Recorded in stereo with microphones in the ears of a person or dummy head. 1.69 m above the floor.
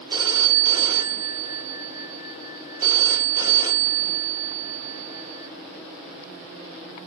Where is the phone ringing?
20° right (ahead or behind), 2.5 m.